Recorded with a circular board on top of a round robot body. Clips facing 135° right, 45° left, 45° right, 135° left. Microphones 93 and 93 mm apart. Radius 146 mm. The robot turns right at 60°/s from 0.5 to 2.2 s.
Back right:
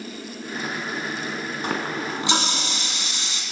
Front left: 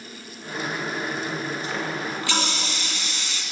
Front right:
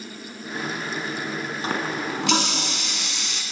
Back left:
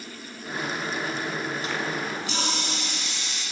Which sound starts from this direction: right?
A running tap, at 1.6 s.